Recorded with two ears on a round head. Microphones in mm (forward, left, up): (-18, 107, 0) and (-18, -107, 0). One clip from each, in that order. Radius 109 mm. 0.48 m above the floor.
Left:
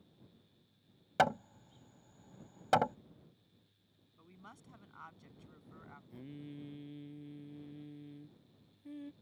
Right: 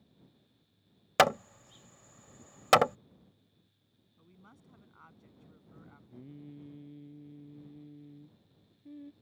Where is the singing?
35° left (ahead or behind).